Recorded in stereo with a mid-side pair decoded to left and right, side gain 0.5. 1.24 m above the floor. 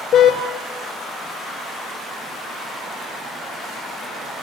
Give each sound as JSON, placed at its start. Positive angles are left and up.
{"t": 0.1, "sound": "a car horn", "azimuth_deg": 60, "distance_m": 2.5}